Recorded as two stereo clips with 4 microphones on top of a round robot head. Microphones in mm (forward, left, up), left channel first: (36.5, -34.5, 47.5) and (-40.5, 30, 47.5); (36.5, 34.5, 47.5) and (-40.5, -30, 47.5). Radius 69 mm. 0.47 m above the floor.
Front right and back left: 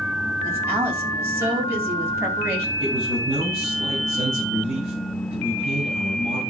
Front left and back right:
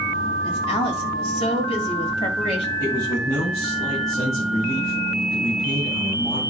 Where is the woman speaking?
75° left, 3.5 m.